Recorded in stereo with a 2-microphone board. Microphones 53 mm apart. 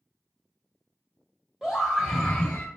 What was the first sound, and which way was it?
A scream, 10° right (ahead or behind).